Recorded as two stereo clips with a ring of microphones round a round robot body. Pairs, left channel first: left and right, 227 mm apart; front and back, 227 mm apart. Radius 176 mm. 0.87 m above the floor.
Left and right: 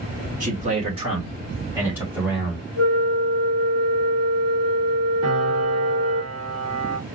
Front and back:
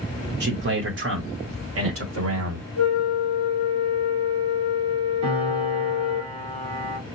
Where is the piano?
160° right, 3 m.